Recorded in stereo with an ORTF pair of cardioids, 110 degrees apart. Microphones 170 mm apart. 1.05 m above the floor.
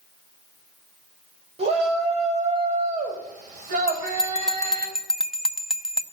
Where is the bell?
5° right, 0.7 m.